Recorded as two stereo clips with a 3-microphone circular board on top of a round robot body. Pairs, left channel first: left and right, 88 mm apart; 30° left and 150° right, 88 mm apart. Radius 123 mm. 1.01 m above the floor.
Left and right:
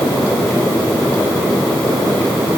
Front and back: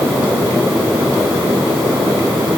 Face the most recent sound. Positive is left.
No sound to turn to.